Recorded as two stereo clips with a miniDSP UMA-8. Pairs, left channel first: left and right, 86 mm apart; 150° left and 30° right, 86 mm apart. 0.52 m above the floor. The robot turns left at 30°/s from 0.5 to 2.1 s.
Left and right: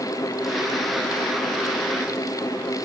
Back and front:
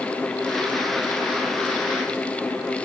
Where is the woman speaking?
I don't hear a woman speaking.